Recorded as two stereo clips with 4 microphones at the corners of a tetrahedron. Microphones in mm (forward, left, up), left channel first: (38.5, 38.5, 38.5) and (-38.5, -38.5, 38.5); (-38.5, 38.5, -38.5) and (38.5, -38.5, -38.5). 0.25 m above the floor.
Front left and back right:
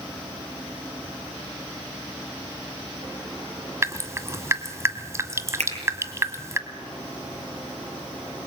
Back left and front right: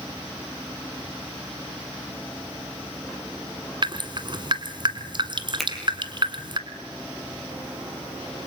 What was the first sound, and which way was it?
Dripping, 75° right.